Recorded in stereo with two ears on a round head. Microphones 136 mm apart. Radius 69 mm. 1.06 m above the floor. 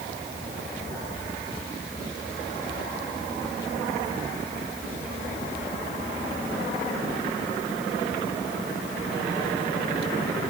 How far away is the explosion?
No explosion in this recording.